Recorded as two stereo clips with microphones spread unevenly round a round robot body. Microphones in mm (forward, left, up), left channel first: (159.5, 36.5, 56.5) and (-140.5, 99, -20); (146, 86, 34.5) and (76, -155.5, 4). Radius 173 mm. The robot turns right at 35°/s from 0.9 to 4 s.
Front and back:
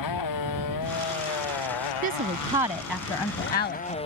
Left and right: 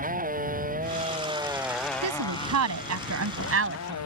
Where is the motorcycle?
50° right; by 4.1 s 60° left.